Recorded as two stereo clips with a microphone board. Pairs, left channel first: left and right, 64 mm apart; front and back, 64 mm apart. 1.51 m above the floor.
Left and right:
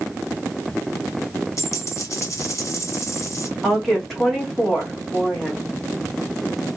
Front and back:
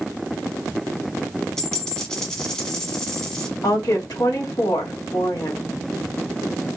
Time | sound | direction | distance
1.6 | a dropped coin | 75° left | 1.3 m
3.6 | a woman speaking | straight ahead | 1.8 m